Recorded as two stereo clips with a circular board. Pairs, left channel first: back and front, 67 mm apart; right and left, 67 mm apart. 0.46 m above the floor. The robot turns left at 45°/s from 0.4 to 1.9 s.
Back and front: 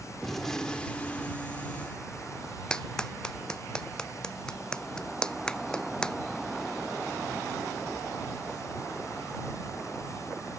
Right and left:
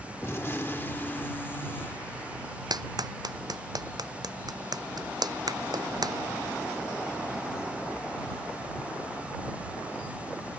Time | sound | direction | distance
0.2 | a gunshot | 100° right | ?
2.7 | a clap | 100° left | ?